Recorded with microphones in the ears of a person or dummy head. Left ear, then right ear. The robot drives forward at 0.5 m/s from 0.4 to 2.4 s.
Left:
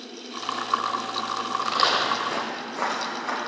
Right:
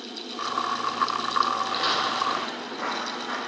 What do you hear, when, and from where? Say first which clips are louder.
1.6 s footsteps: left 3 dB; 30° left (ahead or behind), 4.5 m; by 3.4 s 20° left (ahead or behind), 5 m